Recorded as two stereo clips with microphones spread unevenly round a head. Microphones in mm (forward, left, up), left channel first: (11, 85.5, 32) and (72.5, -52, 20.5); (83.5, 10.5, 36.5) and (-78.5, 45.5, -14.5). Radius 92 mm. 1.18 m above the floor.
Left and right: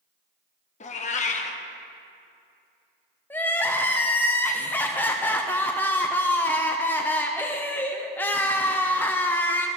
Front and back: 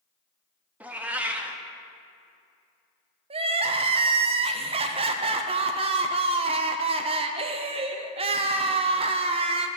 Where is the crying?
165° right, 0.6 m.